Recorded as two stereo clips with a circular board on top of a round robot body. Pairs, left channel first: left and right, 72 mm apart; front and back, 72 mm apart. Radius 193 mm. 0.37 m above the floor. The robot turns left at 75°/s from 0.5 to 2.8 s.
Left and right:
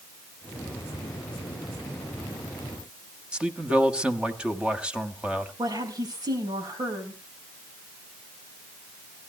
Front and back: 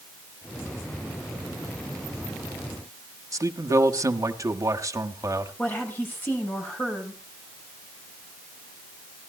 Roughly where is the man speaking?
Behind.